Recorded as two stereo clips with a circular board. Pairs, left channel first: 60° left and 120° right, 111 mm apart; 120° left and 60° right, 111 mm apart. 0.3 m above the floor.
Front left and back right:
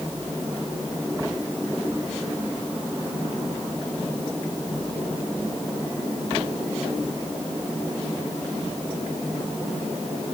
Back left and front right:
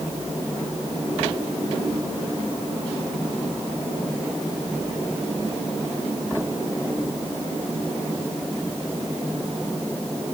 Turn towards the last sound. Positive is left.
No sound to turn to.